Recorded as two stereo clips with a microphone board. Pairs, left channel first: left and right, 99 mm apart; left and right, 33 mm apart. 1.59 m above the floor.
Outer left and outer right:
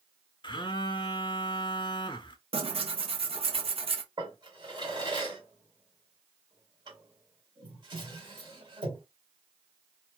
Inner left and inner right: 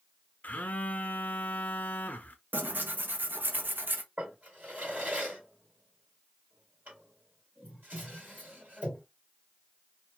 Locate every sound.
0.4 s a phone buzzing: 55° left (ahead or behind), 0.5 m
2.5 s tearing paper: 75° right (ahead or behind), 0.5 m
4.2 s a drawer: 50° right (ahead or behind), 1.8 m